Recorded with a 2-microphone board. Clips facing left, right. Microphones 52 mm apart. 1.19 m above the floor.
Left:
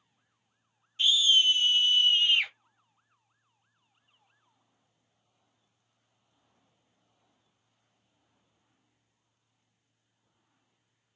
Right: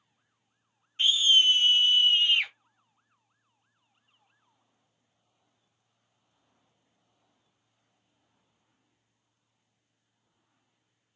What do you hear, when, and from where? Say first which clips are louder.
1.0 s a scream: right 1 dB; 40° right (ahead or behind), 0.9 m; by 2.5 s centre (ahead or behind), 0.9 m